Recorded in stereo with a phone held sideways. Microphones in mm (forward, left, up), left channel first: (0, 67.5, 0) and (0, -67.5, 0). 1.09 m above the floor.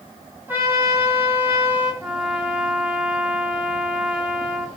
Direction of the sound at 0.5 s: 15° right (ahead or behind).